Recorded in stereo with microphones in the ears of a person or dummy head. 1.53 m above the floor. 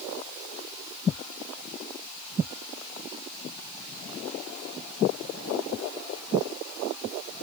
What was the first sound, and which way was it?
Only background noise.